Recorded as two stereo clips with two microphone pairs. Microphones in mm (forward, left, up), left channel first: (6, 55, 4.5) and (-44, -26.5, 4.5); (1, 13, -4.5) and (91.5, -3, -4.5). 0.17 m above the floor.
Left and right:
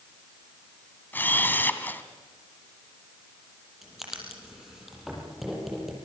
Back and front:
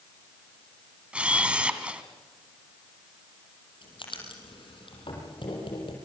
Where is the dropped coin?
I don't hear a dropped coin.